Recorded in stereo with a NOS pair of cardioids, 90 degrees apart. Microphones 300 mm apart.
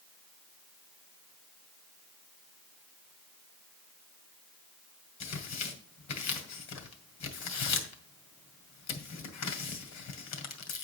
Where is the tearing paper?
70° left, 1.9 m.